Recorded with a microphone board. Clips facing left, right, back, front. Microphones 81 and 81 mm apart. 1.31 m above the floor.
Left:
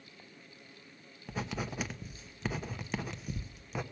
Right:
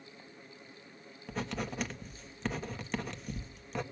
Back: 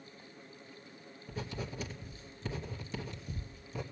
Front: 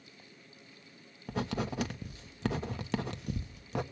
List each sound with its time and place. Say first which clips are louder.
1.3 s writing: right 1 dB, front 7 dB; 5° left, 1.3 m